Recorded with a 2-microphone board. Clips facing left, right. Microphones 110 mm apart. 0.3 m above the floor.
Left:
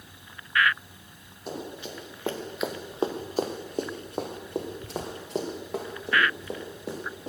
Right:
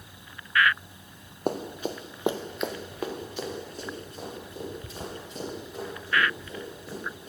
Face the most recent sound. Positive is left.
turn(degrees=70)  # may be behind; listen again after turning